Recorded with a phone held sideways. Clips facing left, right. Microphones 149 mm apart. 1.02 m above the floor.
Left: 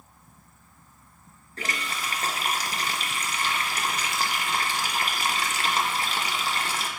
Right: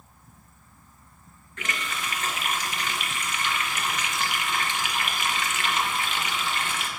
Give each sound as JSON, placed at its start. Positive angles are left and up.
{"t": 1.6, "sound": "a running tap", "side_deg": 35, "distance_m": 0.7}